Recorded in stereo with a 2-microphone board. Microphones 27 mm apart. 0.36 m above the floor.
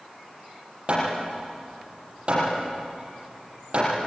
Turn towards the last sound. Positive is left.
turn(degrees=-40)  # may be behind; listen again after turning